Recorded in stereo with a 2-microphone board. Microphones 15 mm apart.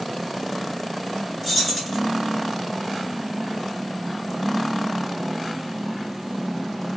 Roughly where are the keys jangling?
Centre.